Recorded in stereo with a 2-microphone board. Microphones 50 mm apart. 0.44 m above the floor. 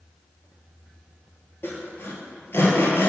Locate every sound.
1.6 s sawing: 50° left (ahead or behind), 1.7 m